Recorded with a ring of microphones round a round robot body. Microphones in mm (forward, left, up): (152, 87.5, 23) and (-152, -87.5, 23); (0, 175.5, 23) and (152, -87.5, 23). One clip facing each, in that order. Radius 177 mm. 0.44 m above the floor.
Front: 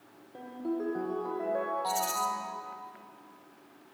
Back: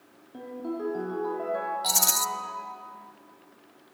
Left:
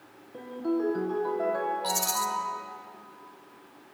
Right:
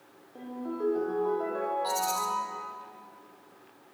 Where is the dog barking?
I don't hear a dog barking.